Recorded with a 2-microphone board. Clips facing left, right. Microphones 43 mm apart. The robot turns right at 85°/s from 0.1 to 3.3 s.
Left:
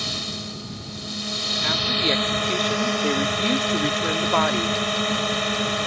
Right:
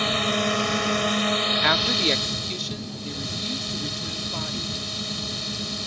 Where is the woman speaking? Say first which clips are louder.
Left 2 dB; 45° right; by 4.8 s 100° left.